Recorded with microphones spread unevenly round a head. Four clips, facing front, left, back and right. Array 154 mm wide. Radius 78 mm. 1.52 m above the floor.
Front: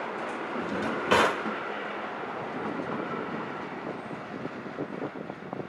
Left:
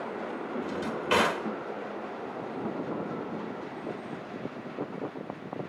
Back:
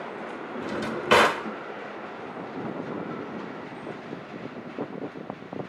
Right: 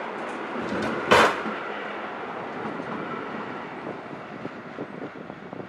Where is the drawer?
115° right, 1.4 m.